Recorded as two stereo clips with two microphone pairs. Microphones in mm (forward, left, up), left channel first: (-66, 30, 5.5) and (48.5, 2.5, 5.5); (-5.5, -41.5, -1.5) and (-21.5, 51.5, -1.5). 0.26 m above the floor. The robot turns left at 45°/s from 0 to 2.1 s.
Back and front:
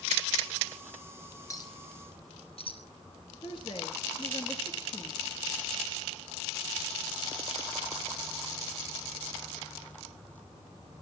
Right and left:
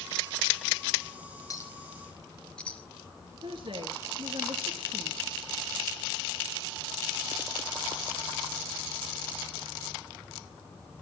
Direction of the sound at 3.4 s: 125° left.